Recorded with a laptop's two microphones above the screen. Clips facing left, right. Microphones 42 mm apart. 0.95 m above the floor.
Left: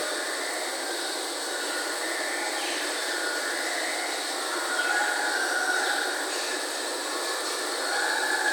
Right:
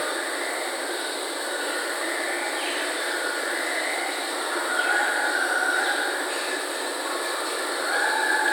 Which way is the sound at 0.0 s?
20° right (ahead or behind).